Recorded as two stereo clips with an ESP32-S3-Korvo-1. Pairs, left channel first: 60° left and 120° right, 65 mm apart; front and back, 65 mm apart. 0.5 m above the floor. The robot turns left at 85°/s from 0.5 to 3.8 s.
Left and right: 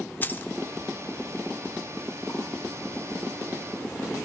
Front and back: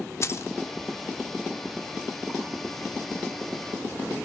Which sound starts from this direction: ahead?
Keys jangling, at 0.2 s.